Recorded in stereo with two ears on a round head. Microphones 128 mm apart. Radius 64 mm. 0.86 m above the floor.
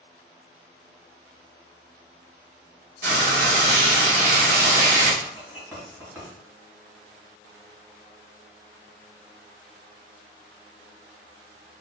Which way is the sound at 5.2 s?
25° right (ahead or behind).